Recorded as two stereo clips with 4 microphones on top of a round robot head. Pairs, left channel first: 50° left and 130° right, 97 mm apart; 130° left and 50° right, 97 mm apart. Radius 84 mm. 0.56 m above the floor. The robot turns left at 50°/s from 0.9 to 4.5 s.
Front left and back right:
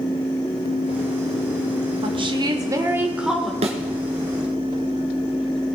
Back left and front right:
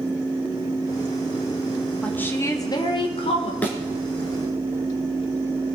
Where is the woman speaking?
150° right, 1.7 m; by 3.5 s 135° left, 1.7 m.